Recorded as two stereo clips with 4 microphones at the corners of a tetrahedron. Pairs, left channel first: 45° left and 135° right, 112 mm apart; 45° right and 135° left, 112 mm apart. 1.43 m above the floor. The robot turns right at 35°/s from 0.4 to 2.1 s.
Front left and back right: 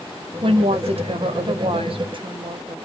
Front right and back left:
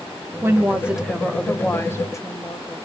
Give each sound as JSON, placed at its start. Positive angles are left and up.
{"t": 0.4, "sound": "a woman speaking", "azimuth_deg": -160, "distance_m": 0.6}